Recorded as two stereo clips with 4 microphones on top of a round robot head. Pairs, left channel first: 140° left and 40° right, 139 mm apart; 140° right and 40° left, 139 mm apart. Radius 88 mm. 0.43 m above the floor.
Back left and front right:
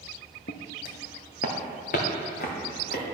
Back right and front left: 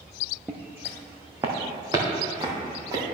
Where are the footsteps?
120° left, 0.8 m; by 3.0 s 105° left, 2.5 m.